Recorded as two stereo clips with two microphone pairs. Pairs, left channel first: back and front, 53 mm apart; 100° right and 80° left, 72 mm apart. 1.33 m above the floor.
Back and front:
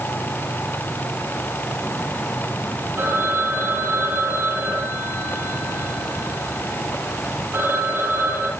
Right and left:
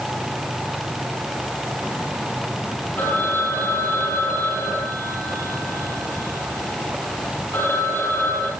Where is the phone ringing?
45° right, 9.5 m.